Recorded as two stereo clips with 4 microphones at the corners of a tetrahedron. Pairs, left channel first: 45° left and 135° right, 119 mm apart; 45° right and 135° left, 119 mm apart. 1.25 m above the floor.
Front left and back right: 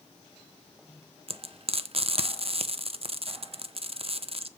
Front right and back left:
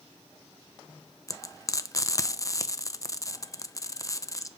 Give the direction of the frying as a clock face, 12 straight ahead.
3 o'clock.